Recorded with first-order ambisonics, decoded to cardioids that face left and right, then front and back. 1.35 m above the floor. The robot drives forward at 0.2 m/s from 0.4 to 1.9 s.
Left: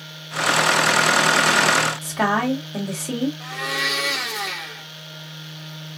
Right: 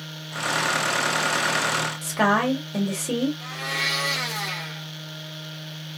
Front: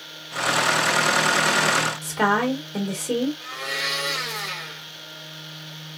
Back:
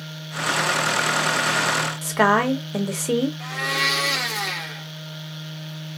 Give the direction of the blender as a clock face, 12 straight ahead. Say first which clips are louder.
Left 2 dB, back 4 dB; 6 o'clock.